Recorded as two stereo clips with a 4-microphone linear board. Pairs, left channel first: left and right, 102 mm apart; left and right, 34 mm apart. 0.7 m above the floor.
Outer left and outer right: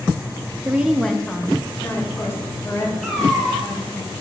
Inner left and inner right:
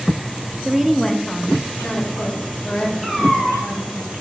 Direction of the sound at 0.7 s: 20° right (ahead or behind).